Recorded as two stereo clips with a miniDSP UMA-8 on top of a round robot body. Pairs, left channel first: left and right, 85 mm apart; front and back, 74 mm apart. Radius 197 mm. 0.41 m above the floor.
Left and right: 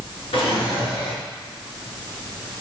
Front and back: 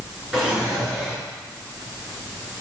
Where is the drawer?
100° left, 4.5 m.